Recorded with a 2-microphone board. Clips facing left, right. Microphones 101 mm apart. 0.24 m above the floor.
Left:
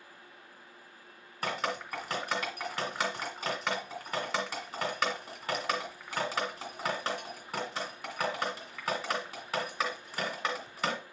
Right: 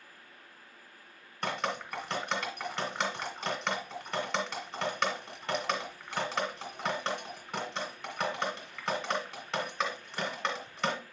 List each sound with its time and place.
1.4 s dripping: 5° left (ahead or behind), 2 m